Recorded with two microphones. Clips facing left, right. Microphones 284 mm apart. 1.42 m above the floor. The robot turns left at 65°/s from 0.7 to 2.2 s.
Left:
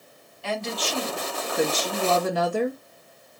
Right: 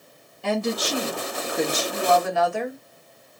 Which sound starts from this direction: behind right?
A woman speaking, at 0.4 s.